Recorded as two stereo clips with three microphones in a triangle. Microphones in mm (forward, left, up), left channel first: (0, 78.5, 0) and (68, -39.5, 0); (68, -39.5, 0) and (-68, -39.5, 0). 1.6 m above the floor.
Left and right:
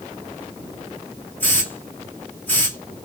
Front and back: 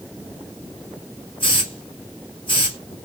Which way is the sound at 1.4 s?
45° left.